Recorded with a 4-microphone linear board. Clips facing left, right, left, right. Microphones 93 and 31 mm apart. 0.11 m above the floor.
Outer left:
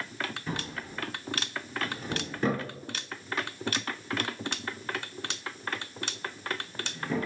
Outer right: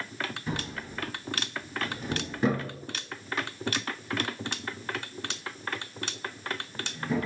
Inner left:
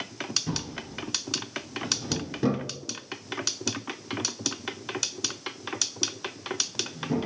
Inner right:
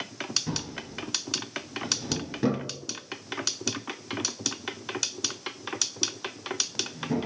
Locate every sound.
0.5 s a drawer: 10° right (ahead or behind), 1.0 m